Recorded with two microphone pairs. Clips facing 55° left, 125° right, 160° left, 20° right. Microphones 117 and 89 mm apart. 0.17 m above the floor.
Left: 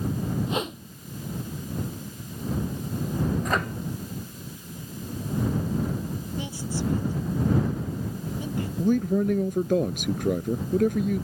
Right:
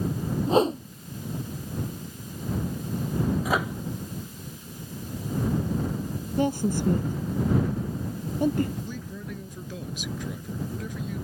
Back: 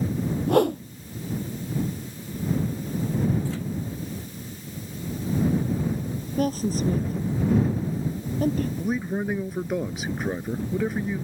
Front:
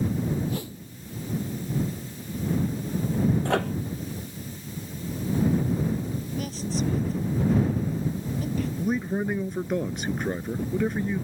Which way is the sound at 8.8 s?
75° left.